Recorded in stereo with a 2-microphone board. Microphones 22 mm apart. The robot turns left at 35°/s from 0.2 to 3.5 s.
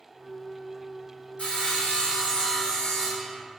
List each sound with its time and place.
1.4 s sawing: 85° left, 0.9 m; by 3.3 s 20° left, 0.9 m